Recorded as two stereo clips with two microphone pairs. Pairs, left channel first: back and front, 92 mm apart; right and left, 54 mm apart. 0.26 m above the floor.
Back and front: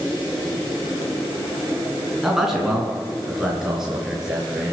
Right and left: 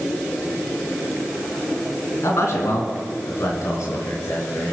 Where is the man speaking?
90° right, 3 m; by 4.7 s 85° right, 4.5 m.